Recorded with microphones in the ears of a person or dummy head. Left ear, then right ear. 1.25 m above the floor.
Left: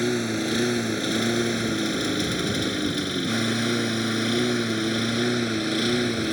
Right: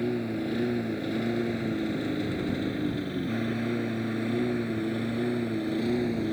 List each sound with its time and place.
0.0 s a lawn mower: 70° left (ahead or behind)